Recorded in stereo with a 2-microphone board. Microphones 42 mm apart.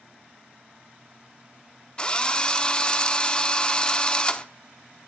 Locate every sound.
2.0 s a drill: 25° left (ahead or behind), 0.7 m